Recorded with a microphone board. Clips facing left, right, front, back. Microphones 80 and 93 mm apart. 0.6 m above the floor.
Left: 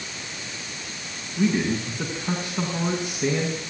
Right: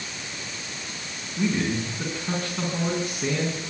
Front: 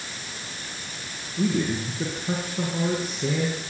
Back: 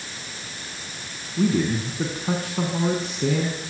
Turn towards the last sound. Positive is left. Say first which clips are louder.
# left 2 dB, back 3 dB
turn(degrees=165)